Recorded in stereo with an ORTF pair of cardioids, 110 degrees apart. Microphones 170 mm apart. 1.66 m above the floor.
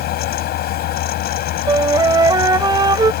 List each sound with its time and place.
0.0 s a fan: 70° left
1.7 s a flute: 25° right